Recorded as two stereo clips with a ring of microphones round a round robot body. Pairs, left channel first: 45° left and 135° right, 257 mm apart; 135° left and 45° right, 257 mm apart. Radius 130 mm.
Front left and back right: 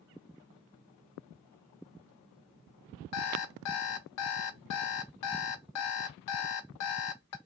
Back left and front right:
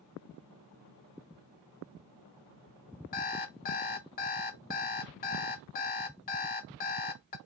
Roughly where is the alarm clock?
Left.